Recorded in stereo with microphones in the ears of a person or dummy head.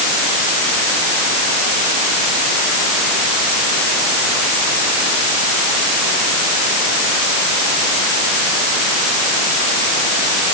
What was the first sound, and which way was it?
Only background noise.